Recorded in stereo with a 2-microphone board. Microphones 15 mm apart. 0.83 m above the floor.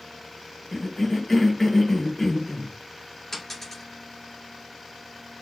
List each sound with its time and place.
0.7 s a cough: 15° left (ahead or behind), 0.9 m
3.3 s a dropped coin: 35° left (ahead or behind), 1.9 m